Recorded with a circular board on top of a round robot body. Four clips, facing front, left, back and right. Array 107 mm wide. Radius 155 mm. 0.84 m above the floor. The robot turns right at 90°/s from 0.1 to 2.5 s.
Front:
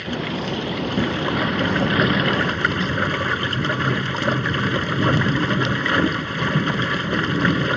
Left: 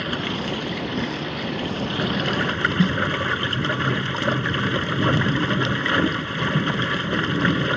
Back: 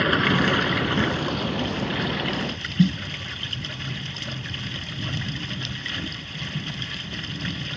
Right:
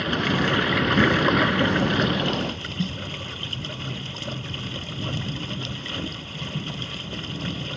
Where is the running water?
Straight behind; by 7.8 s 35° left.